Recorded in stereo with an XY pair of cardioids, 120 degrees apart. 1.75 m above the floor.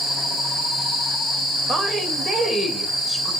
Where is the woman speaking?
40° right, 2.5 m.